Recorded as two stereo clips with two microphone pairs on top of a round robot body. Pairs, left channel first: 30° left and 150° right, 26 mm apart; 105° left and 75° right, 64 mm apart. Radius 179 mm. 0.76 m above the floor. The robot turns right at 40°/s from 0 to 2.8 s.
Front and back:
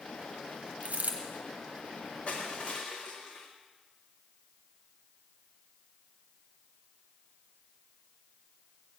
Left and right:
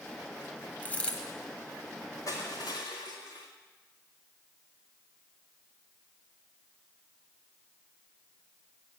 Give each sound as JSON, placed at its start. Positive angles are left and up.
{"t": 0.8, "sound": "a dropped coin", "azimuth_deg": 170, "distance_m": 0.8}
{"t": 2.3, "sound": "crushing", "azimuth_deg": 75, "distance_m": 0.6}